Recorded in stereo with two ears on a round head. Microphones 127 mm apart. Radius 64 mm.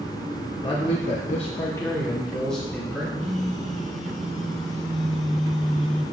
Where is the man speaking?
30° left (ahead or behind), 1.2 m; by 3.0 s centre (ahead or behind), 2.5 m.